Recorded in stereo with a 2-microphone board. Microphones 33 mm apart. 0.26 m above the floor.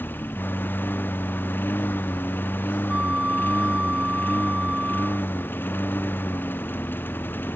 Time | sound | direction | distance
0.0 | a lawn mower | 85° left | ?
2.9 | a flute | 40° right (ahead or behind) | ?